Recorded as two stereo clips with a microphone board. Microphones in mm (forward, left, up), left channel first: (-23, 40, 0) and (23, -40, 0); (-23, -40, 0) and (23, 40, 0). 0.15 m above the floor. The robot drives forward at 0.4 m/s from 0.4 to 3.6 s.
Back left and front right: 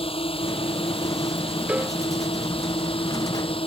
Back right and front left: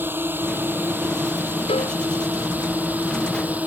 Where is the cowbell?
135° right.